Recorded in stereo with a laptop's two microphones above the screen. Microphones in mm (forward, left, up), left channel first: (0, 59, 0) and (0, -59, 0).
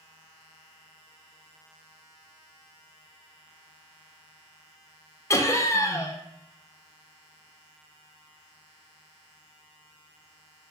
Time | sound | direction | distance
5.3 | laughter | 25° left (ahead or behind) | 0.5 m